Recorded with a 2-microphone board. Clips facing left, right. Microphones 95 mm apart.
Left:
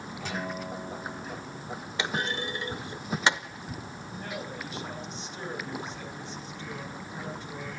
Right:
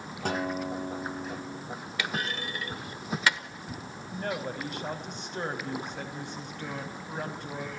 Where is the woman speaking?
60° right (ahead or behind), 4.5 m.